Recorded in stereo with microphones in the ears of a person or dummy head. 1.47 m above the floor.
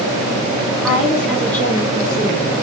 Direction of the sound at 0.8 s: 10° right (ahead or behind).